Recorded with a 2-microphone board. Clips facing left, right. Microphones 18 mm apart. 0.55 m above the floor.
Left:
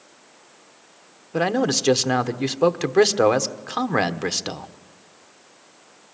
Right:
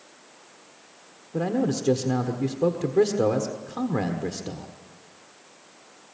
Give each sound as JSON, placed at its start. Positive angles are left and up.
{"t": 1.3, "sound": "a man speaking", "side_deg": 50, "distance_m": 1.3}